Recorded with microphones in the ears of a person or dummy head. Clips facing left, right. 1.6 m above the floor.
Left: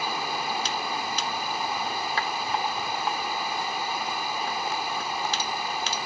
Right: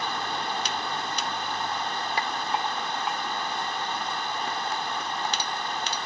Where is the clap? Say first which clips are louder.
Right 1 dB; 10° right (ahead or behind).